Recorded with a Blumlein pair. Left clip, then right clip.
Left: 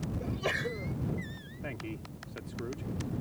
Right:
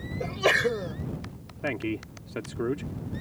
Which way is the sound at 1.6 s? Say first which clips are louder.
Right 11 dB; 60° right.